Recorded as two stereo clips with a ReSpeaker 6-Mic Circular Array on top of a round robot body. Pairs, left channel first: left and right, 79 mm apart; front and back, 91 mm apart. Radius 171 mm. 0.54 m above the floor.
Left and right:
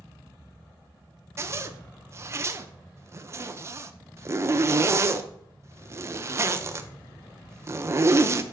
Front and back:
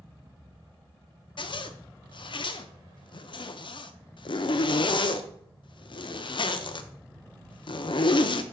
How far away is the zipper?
About 0.6 m.